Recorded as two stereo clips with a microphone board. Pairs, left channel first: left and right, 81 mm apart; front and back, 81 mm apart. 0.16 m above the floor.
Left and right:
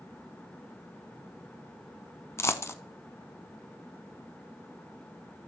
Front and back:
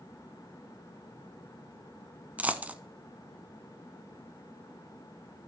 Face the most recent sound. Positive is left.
turn(degrees=120)